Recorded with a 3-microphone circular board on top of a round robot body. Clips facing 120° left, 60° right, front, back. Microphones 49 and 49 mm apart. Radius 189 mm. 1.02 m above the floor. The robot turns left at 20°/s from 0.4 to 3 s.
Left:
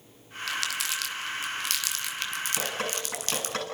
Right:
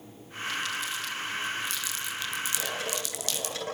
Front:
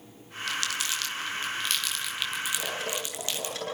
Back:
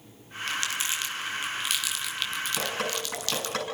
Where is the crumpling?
120° left, 1.1 m; by 3.6 s 70° left, 1.1 m.